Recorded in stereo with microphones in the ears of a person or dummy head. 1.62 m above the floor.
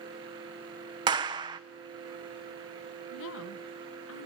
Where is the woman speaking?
80° left, 1.8 m.